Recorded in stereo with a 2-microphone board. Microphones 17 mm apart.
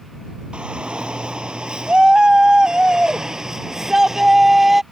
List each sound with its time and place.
0.5 s a shout: 70° right (ahead or behind); by 4.8 s 20° right (ahead or behind)